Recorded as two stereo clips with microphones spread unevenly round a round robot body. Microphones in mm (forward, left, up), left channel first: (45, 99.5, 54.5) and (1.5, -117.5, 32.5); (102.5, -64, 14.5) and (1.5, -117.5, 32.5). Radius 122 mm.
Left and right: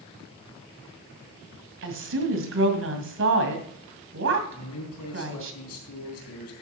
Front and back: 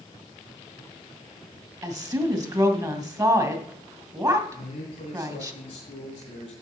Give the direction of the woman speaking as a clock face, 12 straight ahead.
3 o'clock.